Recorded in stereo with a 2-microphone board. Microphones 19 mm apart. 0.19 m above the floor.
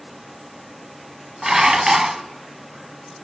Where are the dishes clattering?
25° right (ahead or behind), 0.7 m.